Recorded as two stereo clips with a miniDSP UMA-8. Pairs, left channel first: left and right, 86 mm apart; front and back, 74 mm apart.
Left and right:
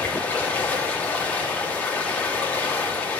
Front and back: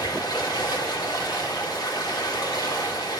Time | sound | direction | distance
0.0 | running water | 20° left | 1.5 m